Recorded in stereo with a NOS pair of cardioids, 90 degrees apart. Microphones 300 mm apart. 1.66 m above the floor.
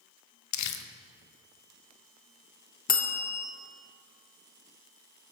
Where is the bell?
30° left, 1.0 m.